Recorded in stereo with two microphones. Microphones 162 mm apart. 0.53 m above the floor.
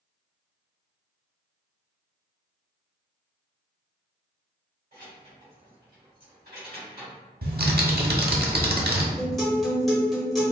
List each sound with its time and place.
4.9 s keys jangling: 70° right (ahead or behind), 2.0 m; by 7.2 s 80° right, 3 m
7.4 s typing on a keyboard: 75° right (ahead or behind), 0.8 m
9.2 s a guitar: centre (ahead or behind), 1.2 m